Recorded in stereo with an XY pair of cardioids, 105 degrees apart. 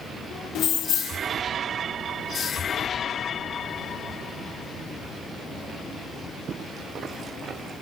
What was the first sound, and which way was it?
Keys jangling, 65° left.